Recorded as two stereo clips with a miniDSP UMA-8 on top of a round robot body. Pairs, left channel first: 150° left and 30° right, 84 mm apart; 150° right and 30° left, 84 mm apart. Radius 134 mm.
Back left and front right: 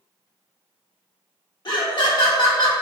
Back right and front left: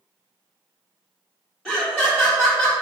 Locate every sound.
1.6 s laughter: 125° left, 0.9 m